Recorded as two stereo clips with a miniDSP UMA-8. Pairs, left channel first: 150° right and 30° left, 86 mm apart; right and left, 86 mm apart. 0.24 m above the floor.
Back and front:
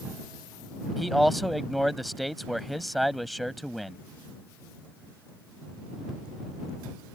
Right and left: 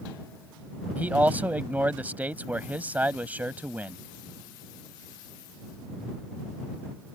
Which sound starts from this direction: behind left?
A man speaking, at 1.0 s.